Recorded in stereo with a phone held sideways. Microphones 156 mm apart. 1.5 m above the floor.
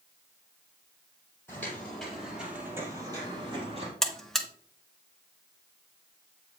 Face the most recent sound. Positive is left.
turn(degrees=0)  # may be behind; listen again after turning